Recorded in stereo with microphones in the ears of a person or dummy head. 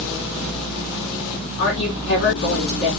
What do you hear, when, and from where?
1.6 s a woman speaking: 70° left (ahead or behind), 5 m